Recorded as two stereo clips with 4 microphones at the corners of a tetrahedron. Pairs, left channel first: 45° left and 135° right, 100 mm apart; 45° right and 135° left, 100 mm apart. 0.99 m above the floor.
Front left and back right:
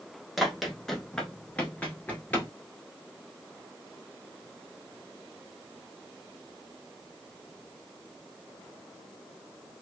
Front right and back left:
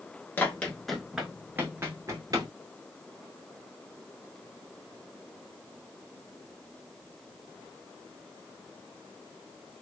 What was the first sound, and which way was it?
Running footsteps, 50° right.